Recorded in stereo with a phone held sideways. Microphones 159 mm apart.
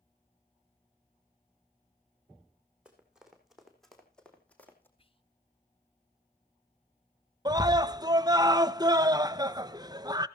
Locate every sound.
2.9 s running footsteps: 5° right (ahead or behind), 4 m; by 4.9 s 15° left (ahead or behind), 3 m
5.0 s whispering: 35° left (ahead or behind), 1.4 m
7.5 s a scream: 25° right (ahead or behind), 0.8 m